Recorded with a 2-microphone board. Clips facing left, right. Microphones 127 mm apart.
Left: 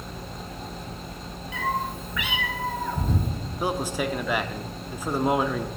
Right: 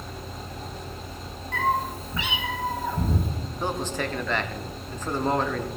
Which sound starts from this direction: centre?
A man speaking, at 3.6 s.